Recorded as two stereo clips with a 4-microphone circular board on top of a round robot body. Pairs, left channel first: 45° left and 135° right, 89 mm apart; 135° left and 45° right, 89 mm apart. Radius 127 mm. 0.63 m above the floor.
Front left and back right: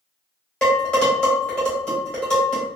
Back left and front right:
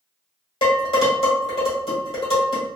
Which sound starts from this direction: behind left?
Dishes clattering, at 0.6 s.